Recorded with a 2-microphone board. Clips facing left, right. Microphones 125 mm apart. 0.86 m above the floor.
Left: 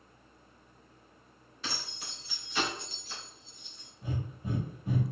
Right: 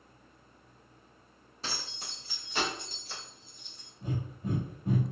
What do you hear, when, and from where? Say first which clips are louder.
1.6 s keys jangling: even; 35° right (ahead or behind), 1.3 m; by 3.9 s 45° right (ahead or behind), 2.5 m
4.0 s breathing: right 2 dB; 45° right (ahead or behind), 1.4 m